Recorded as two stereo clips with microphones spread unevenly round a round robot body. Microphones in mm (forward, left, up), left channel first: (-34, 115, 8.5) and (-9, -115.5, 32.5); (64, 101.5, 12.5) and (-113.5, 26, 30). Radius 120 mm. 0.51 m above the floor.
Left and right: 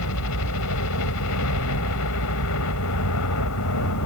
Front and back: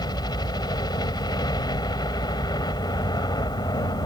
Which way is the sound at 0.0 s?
90° left.